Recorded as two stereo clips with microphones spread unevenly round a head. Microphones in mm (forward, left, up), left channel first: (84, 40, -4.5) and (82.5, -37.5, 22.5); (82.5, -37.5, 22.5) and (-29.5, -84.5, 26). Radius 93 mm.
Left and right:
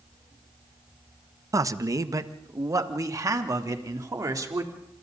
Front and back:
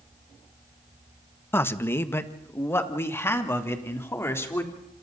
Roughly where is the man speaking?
Ahead right.